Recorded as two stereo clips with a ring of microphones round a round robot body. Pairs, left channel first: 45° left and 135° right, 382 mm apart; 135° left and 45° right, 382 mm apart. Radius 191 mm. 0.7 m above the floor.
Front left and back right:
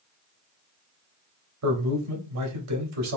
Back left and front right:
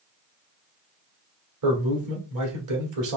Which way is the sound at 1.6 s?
90° right.